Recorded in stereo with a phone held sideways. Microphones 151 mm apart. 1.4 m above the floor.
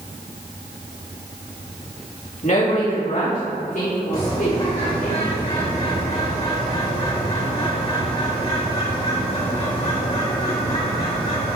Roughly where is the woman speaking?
Left.